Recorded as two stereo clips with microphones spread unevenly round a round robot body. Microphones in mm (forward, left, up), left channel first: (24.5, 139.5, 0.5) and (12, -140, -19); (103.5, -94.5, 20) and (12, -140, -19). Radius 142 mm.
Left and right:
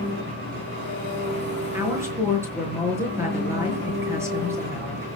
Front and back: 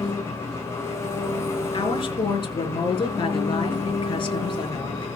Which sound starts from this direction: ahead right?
An engine running, at 0.0 s.